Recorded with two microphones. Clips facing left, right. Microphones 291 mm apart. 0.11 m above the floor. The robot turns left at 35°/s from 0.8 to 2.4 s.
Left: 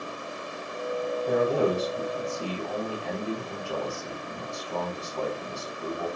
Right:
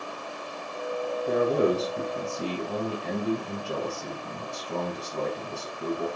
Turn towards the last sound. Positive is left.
turn(degrees=-50)